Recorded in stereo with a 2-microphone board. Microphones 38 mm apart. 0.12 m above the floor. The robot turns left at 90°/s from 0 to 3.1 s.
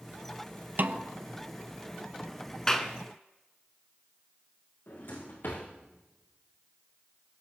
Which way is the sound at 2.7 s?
15° left (ahead or behind).